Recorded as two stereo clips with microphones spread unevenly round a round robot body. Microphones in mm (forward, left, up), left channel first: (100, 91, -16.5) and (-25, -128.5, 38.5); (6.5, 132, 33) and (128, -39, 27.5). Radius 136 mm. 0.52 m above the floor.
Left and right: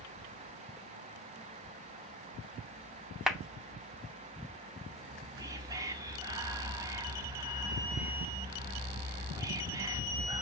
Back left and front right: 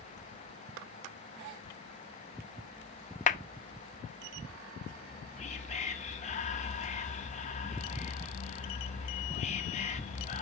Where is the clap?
130° left, 0.7 m.